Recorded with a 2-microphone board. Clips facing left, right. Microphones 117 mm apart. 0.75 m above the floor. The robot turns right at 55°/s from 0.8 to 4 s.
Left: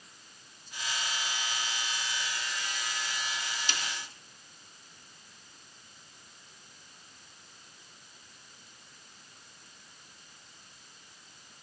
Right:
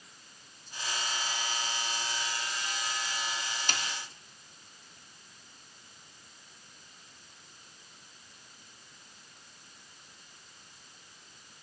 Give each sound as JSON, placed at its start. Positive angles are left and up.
{"t": 3.7, "sound": "a snare drum", "side_deg": -50, "distance_m": 1.2}